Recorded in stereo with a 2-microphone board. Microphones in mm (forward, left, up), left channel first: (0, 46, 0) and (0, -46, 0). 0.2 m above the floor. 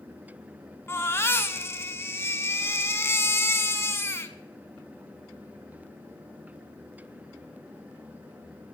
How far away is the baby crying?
About 0.8 m.